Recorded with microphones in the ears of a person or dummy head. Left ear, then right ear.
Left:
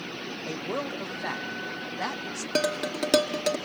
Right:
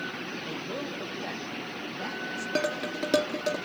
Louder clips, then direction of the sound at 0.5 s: Left 3 dB; 45° left (ahead or behind).